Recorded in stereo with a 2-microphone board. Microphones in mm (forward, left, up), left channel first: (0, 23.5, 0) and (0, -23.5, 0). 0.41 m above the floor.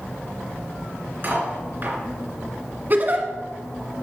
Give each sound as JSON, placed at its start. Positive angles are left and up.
{"t": 1.2, "sound": "cutlery clinking", "side_deg": -45, "distance_m": 3.0}
{"t": 2.9, "sound": "a giggle", "side_deg": -40, "distance_m": 1.3}